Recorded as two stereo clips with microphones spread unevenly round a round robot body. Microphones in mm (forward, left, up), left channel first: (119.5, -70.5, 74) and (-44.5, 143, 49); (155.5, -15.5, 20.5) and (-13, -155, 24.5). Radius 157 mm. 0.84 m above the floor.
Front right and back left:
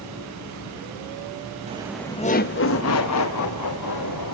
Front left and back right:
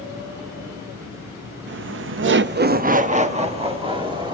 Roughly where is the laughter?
Behind.